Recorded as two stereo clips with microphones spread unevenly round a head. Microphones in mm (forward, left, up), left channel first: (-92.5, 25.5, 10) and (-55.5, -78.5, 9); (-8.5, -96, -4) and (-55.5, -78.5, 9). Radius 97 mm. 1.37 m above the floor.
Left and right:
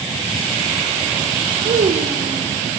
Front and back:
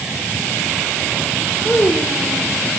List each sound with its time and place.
1.6 s a child speaking: 85° right, 3 m